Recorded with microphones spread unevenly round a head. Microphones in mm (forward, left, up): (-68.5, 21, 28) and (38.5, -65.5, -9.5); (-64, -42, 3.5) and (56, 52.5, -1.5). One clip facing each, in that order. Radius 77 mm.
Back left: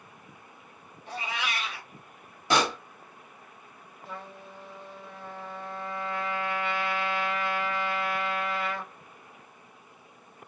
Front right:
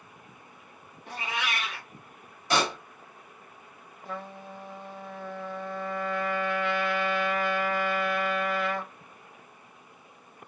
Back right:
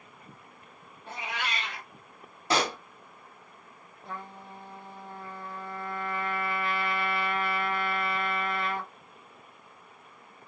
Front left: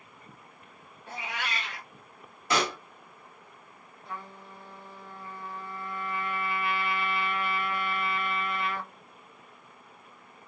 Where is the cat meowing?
85° right, 1.3 m.